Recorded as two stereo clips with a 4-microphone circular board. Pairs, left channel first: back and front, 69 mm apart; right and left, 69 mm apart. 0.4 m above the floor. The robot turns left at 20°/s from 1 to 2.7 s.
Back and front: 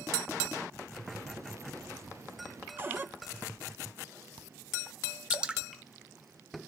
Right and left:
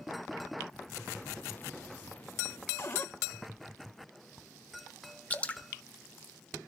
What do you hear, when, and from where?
2.8 s a cupboard door: 50° right, 0.9 m
5.3 s dripping: 55° right, 0.7 m